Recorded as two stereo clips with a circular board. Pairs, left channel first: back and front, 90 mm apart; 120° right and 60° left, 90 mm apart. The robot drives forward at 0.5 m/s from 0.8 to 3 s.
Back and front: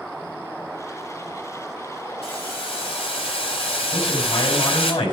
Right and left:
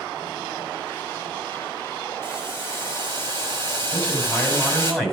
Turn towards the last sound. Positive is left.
turn(degrees=155)